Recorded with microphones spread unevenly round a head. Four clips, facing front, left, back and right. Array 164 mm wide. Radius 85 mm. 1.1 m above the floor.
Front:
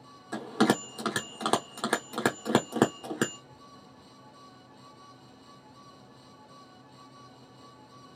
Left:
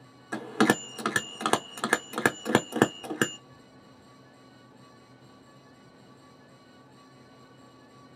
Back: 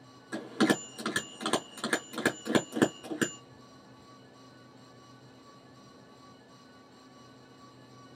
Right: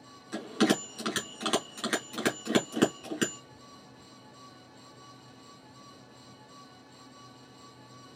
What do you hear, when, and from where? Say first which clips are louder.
0.3 s a bell: left 2 dB, front 2 dB; 85° left, 0.7 m